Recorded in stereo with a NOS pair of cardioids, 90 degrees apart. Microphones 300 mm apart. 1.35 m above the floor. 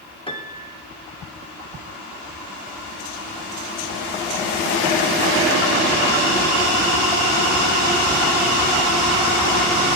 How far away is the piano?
About 2.5 m.